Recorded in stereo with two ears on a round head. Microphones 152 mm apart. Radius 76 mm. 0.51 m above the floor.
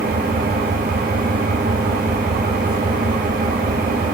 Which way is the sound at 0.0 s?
55° right (ahead or behind).